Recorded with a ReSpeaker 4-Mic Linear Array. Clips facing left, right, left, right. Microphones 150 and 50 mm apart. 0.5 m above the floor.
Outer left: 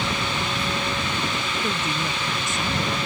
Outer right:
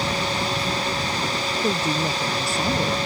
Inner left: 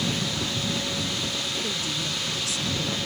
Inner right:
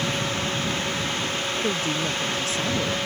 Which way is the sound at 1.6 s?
35° right (ahead or behind).